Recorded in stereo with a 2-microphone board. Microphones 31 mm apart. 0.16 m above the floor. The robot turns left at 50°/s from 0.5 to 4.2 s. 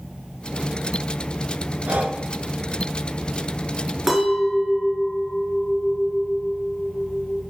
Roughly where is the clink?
Centre.